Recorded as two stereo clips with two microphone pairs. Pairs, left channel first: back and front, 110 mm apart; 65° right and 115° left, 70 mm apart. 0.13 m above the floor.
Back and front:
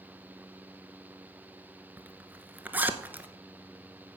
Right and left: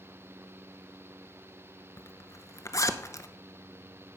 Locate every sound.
2.0 s a zipper: 70° right, 0.8 m